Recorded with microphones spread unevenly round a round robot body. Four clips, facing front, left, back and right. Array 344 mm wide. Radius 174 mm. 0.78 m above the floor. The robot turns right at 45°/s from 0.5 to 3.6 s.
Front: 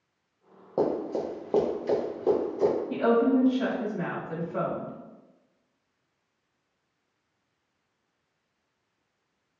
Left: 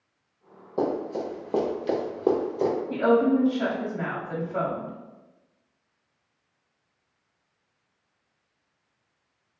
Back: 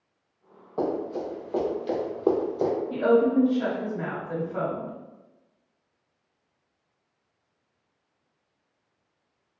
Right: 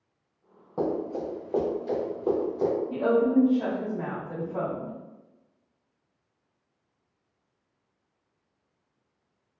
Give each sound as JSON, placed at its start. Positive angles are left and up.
{"t": 0.8, "sound": "running footsteps", "azimuth_deg": -20, "distance_m": 1.7}
{"t": 2.9, "sound": "a woman speaking", "azimuth_deg": 75, "distance_m": 1.6}